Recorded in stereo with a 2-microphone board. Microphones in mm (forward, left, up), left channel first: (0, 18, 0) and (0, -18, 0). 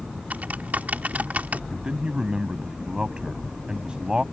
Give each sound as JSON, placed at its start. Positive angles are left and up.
{"t": 0.3, "sound": "typing on a keyboard", "side_deg": -45}
{"t": 1.7, "sound": "a man speaking", "side_deg": -25}